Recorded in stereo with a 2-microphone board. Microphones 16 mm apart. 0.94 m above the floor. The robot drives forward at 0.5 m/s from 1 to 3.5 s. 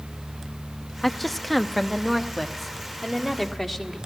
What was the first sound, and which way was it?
A woman speaking, 10° left (ahead or behind).